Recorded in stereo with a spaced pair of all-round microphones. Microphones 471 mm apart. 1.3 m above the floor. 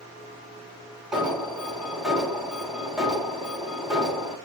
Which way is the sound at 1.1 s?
Centre (ahead or behind).